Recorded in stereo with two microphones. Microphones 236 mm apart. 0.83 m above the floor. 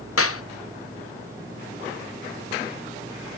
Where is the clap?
70° left (ahead or behind), 0.7 m.